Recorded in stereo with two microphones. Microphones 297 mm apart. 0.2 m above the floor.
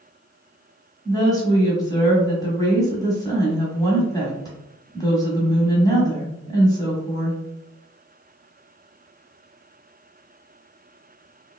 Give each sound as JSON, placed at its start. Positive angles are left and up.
{"t": 1.1, "sound": "a woman speaking", "side_deg": 10, "distance_m": 1.3}